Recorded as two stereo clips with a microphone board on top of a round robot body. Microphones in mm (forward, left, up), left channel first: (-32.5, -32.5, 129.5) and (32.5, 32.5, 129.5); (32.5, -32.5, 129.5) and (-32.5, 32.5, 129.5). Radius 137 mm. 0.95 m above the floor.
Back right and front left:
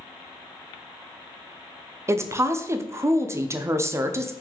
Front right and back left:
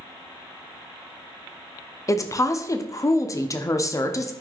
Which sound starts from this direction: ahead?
A woman speaking, at 2.1 s.